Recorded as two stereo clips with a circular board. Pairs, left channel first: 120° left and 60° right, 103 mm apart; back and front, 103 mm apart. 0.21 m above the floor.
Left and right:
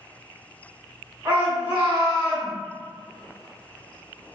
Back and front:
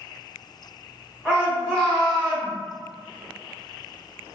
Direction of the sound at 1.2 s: 115° right.